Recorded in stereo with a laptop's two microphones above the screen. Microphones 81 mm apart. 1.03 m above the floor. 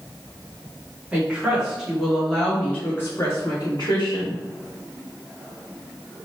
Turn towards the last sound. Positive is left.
turn(degrees=50)  # may be behind; listen again after turning